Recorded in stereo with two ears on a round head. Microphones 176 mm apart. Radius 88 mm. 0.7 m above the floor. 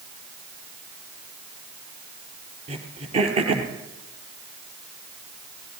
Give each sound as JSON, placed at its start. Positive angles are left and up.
{"t": 2.7, "sound": "throat clearing", "side_deg": -30, "distance_m": 3.5}